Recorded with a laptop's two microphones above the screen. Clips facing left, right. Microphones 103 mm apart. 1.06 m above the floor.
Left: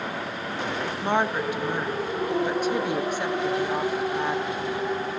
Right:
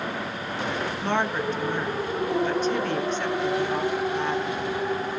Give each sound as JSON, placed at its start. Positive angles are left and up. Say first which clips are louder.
{"t": 1.0, "sound": "a woman speaking", "louder": "left 2 dB", "side_deg": 10, "distance_m": 1.0}